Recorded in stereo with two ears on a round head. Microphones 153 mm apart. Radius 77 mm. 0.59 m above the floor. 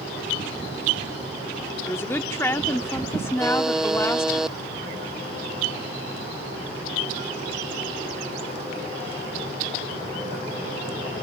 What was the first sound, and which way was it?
A woman speaking, 15° left (ahead or behind).